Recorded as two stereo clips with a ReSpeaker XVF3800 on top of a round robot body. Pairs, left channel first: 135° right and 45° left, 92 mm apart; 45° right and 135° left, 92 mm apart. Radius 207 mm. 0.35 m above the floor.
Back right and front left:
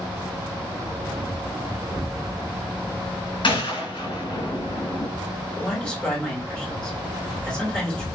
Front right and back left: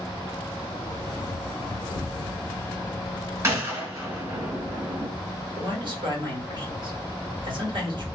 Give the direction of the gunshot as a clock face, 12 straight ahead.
6 o'clock.